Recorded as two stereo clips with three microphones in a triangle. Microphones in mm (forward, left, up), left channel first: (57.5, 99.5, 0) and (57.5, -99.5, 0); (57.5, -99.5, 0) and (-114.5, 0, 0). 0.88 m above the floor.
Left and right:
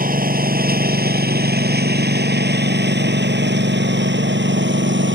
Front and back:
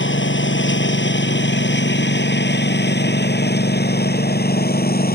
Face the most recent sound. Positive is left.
turn(degrees=-70)